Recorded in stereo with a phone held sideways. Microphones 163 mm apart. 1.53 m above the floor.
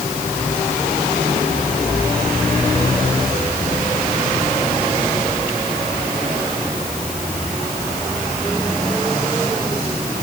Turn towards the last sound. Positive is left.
No sound to turn to.